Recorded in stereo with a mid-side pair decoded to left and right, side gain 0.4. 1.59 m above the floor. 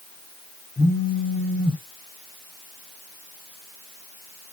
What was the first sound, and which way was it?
A phone buzzing, 5° left.